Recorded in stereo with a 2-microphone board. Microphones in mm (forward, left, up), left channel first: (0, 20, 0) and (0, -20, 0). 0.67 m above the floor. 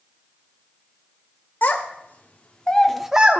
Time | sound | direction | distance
1.6 | a child speaking | 60° left (ahead or behind) | 1.2 m